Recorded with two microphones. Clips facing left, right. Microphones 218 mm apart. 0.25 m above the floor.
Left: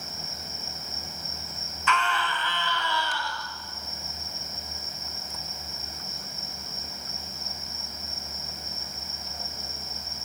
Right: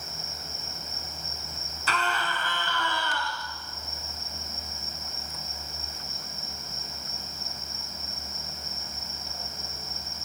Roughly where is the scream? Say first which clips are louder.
Left 2 dB; right.